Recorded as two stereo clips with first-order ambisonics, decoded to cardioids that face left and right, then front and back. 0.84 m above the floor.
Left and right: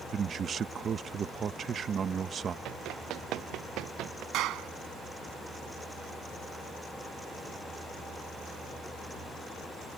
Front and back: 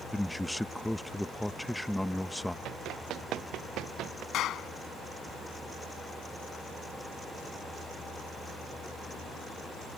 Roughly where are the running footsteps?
Behind right.